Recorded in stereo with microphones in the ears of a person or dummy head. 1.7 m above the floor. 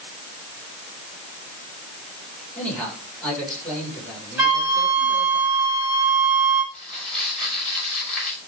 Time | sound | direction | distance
2.5 | a man speaking | 5° left (ahead or behind) | 6 m
4.4 | a flute | 10° right (ahead or behind) | 5 m
6.7 | crumpling | 5° left (ahead or behind) | 5.5 m